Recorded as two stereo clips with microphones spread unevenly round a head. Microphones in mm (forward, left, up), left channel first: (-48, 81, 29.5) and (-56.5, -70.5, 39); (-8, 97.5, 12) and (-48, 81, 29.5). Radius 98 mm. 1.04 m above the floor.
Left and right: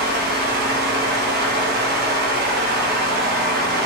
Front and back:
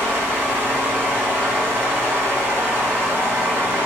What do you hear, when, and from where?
0.0 s a fan: 110° right, 0.8 m